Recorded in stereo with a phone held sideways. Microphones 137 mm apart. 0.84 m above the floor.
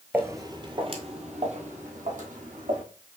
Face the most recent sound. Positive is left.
turn(degrees=-70)  # may be behind; listen again after turning